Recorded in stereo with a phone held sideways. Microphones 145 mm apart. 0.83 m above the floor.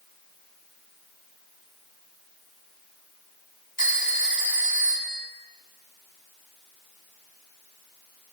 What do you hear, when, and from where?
3.8 s a phone ringing: 70° left (ahead or behind), 3 m